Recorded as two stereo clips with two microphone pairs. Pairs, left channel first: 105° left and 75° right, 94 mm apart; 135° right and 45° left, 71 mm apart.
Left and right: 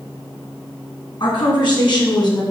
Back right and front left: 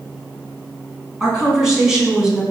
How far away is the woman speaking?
About 3 m.